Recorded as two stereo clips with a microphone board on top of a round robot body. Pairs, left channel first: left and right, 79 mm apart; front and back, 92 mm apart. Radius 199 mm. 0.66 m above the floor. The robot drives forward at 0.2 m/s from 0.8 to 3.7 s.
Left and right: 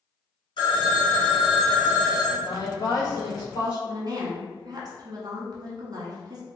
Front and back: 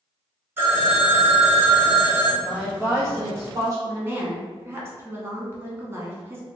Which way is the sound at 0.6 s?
110° left.